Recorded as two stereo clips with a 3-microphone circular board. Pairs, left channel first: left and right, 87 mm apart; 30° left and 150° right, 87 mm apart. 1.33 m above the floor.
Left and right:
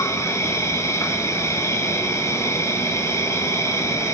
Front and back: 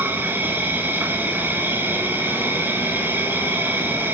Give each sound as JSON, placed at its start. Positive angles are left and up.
{"t": 0.0, "sound": "an insect", "azimuth_deg": 145, "distance_m": 3.0}